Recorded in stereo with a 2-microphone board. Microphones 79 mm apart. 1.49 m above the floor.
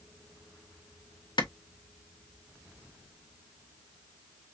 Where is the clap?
70° left (ahead or behind), 0.9 m.